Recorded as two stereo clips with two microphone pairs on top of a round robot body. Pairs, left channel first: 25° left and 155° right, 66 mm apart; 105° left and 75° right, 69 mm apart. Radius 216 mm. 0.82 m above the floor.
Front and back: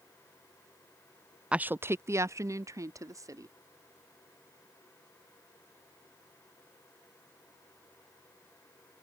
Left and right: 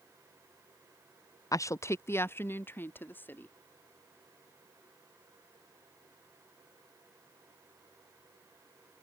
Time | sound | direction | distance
1.5 | a woman speaking | 130° left | ?